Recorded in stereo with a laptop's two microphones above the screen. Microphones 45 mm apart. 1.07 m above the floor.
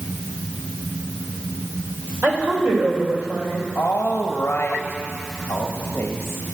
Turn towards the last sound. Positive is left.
turn(degrees=50)  # may be behind; listen again after turning